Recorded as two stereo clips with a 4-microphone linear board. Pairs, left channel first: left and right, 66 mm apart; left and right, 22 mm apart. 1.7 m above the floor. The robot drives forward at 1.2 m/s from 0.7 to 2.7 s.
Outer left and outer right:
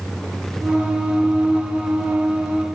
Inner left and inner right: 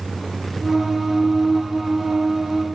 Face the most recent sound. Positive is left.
No sound to turn to.